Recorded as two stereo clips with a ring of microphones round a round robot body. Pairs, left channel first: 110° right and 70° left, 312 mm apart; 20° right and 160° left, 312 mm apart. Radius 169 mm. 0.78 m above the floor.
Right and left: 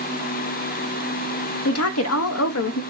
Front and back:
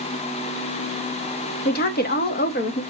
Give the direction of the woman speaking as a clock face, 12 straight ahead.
3 o'clock.